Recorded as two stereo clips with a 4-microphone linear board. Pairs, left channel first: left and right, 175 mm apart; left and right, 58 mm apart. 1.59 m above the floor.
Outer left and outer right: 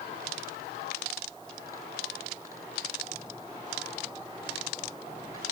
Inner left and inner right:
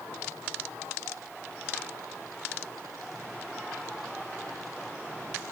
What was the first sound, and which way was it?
Only background noise.